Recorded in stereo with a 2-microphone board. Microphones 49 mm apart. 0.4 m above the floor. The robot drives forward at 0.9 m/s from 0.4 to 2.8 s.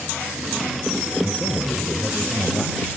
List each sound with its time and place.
1.2 s a man speaking: 35° left (ahead or behind), 1.3 m; by 2.8 s 20° left (ahead or behind), 2 m